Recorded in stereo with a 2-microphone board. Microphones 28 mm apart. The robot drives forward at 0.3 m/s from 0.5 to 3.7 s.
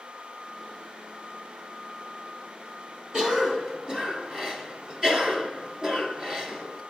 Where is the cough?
25° right (ahead or behind), 1.5 m.